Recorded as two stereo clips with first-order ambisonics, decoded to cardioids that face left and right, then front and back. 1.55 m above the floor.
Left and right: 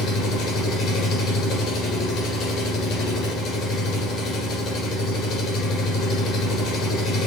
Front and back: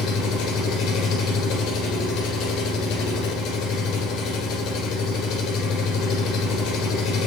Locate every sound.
0.0 s an engine running: 45° left, 7 m